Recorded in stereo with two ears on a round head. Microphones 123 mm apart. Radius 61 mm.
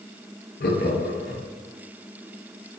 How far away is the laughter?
About 0.8 m.